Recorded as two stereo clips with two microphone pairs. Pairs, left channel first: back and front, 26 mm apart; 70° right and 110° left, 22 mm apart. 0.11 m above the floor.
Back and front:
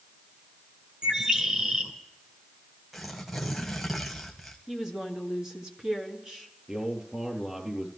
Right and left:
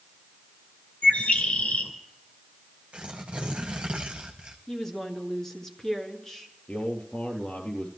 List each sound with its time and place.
1.0 s a bird: 60° right, 2.5 m
2.9 s tearing paper: 80° left, 1.8 m
4.7 s a woman speaking: 25° right, 1.7 m
6.7 s a man speaking: 65° right, 4 m